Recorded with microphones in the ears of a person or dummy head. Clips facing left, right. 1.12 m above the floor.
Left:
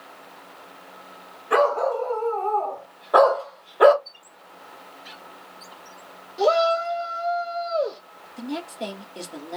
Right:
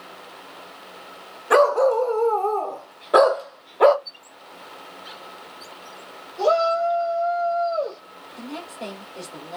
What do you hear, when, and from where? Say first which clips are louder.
1.5 s a dog barking: right 4 dB; 75° right (ahead or behind), 1.9 m; by 4.0 s 15° left (ahead or behind), 0.8 m
4.0 s a squeak: right 3 dB; 5° right (ahead or behind), 1.8 m
6.4 s a shout: even; 20° left (ahead or behind), 1.1 m
8.4 s a woman speaking: left 4 dB; 15° left (ahead or behind), 1.9 m